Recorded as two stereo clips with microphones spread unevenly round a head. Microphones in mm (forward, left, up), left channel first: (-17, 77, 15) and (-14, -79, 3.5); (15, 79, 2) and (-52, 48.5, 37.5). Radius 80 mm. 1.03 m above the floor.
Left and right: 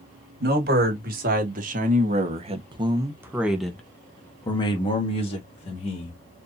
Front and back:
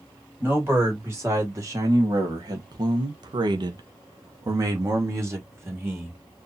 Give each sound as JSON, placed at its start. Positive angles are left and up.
{"t": 0.4, "sound": "a man speaking", "azimuth_deg": -75, "distance_m": 2.0}